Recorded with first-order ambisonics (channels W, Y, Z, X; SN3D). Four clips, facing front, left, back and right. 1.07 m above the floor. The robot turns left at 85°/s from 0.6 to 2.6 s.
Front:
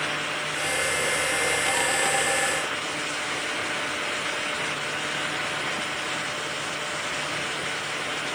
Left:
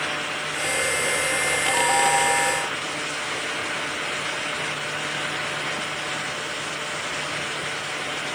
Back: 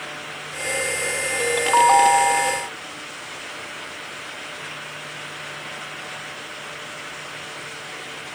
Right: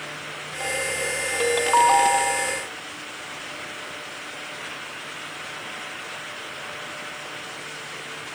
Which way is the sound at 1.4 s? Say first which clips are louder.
Right 7 dB, back 7 dB; 115° right.